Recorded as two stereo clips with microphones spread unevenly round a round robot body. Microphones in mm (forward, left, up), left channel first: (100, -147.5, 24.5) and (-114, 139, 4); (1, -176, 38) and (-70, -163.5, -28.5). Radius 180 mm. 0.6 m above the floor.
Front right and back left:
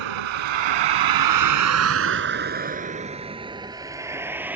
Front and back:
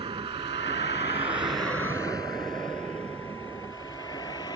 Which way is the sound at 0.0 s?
130° left.